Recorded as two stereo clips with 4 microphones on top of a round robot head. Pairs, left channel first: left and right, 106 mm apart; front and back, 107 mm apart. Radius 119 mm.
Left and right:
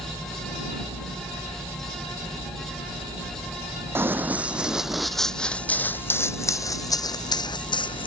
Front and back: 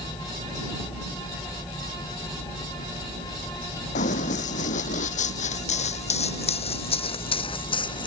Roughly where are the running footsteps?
Ahead.